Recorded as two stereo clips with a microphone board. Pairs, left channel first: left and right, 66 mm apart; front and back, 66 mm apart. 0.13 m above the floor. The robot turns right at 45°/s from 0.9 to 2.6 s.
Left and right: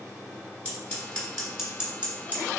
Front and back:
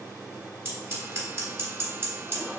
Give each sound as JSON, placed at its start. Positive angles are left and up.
{"t": 0.7, "sound": "scissors", "azimuth_deg": 155, "distance_m": 2.0}